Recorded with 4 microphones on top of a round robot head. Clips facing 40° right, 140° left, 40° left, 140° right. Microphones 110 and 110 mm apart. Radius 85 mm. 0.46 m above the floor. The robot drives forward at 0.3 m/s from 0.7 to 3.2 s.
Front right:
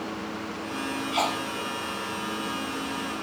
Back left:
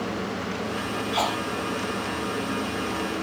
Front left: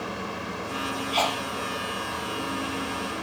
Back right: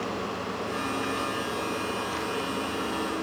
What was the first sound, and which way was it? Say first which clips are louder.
A sneeze: back left 1 dB, front left 4 dB; 50° left.